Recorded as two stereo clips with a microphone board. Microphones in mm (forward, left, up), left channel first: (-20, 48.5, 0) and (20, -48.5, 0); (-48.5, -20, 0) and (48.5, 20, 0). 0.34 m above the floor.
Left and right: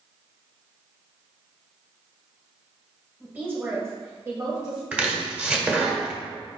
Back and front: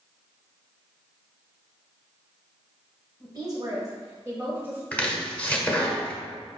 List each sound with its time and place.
3.2 s a woman speaking: 5° left, 1.8 m; by 4.8 s 45° right, 1.8 m
4.9 s chopping: 115° right, 1.3 m